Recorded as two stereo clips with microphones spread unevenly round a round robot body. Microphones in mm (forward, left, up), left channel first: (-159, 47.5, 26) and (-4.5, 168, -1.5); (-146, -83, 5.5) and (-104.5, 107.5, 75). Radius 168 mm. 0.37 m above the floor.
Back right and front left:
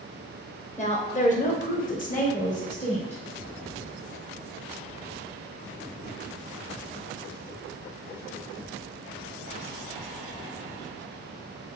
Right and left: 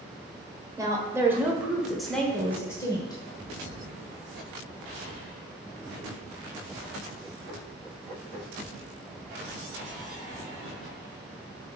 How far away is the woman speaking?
About 1.4 m.